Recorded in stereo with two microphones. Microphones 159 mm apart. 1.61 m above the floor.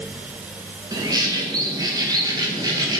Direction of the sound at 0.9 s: 25° right (ahead or behind).